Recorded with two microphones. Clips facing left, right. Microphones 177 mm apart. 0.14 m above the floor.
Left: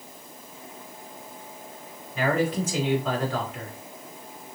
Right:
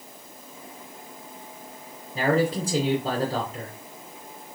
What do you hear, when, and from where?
2.1 s a man speaking: 35° right (ahead or behind), 1.5 m